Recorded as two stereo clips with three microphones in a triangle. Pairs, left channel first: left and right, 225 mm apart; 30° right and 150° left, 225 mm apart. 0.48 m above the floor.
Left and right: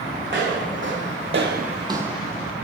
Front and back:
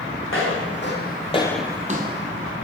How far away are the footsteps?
About 1.9 m.